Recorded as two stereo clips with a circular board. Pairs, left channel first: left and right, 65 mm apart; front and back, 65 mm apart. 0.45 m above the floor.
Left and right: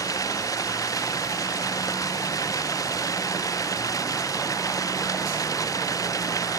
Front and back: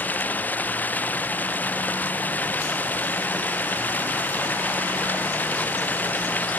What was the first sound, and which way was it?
Running water, 65° left.